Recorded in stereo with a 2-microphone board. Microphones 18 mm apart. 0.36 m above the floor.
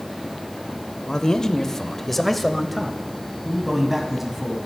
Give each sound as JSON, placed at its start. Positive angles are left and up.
{"t": 1.1, "sound": "a man speaking", "side_deg": 40, "distance_m": 1.0}